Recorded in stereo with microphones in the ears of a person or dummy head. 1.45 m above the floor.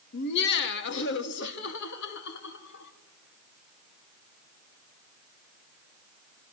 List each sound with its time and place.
0.1 s laughter: 60° left (ahead or behind), 2.0 m; by 2.9 s 65° left (ahead or behind), 5 m